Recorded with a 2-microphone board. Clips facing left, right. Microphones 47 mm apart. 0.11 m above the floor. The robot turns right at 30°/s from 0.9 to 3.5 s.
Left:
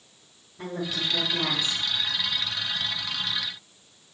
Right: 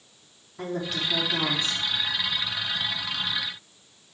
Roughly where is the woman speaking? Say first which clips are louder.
Right 1 dB; right.